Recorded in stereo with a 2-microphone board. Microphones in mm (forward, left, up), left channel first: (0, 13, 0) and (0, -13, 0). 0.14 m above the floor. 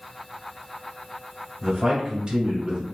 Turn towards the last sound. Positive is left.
turn(degrees=-30)  # may be behind; listen again after turning